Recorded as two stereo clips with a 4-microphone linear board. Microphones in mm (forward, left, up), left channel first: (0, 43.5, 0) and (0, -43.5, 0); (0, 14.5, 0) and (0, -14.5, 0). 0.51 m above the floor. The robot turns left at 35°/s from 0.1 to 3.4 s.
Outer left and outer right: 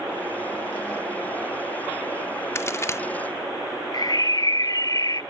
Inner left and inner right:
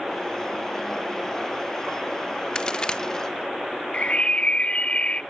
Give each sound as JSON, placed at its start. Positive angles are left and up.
{"t": 2.5, "sound": "a crack", "side_deg": 30, "distance_m": 0.6}
{"t": 3.9, "sound": "a bird", "side_deg": 45, "distance_m": 0.5}